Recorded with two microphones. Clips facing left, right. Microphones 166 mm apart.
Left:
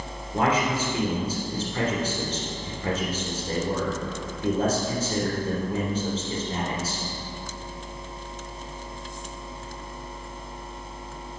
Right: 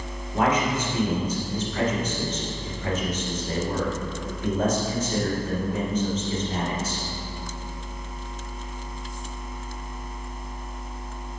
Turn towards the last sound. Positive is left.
turn(degrees=35)  # may be behind; listen again after turning